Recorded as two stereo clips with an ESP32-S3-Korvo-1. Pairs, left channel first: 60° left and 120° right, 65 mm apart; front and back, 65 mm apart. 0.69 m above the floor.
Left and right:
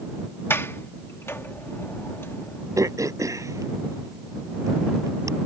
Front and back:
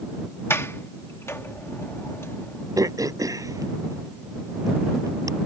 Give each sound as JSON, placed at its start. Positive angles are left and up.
{"t": 0.5, "sound": "a sliding door", "azimuth_deg": 30}
{"t": 2.8, "sound": "throat clearing", "azimuth_deg": -155}